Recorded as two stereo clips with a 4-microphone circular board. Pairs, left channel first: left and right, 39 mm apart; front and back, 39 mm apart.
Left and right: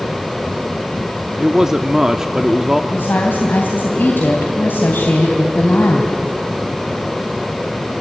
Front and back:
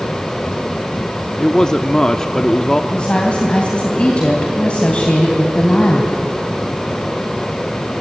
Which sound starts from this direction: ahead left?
A woman speaking, at 2.9 s.